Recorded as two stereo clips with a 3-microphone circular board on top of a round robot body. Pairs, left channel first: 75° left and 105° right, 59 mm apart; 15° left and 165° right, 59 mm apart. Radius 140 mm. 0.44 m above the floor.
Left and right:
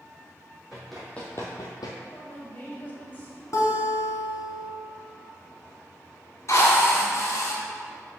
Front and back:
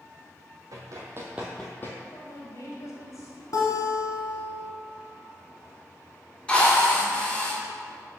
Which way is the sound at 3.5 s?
40° left.